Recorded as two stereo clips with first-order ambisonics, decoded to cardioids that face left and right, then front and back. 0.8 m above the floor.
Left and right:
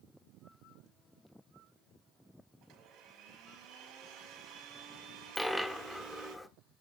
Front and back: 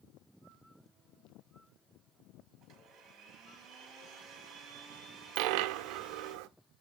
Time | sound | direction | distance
2.6 | a blender | 125° right | 5 m
5.3 | a dropped coin | straight behind | 0.8 m